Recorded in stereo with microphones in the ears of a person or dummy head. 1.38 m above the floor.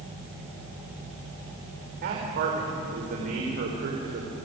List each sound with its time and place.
2.0 s a man speaking: 55° right (ahead or behind), 4 m